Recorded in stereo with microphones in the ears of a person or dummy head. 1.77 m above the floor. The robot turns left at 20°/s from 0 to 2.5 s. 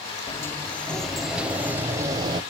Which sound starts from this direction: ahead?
A sliding door, at 0.3 s.